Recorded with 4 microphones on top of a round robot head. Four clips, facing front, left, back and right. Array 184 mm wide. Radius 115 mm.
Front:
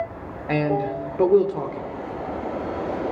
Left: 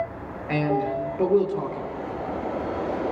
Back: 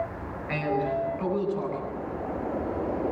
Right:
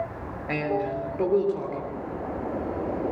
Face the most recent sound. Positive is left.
turn(degrees=10)